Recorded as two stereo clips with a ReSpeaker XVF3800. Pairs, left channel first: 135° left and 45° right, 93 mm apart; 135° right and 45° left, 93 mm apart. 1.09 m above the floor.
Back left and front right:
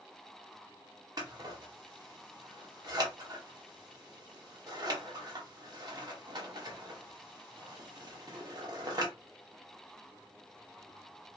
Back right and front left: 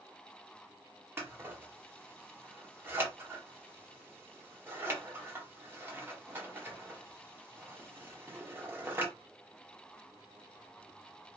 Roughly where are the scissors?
Ahead.